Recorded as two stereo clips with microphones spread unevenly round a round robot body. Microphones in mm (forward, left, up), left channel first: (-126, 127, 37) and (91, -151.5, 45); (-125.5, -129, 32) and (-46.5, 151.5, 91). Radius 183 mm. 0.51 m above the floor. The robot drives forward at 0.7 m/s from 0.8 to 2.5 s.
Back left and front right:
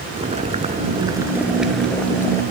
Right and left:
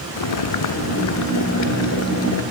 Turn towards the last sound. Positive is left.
turn(degrees=-150)